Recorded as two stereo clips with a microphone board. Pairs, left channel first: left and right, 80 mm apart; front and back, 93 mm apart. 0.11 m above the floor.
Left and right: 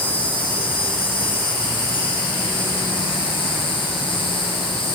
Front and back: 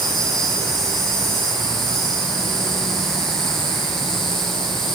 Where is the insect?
85° left, 6.5 m.